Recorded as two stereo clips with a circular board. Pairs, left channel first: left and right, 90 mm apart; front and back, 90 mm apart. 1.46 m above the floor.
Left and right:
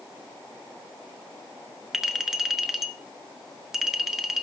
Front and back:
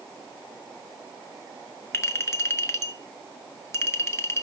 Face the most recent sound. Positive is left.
turn(degrees=-5)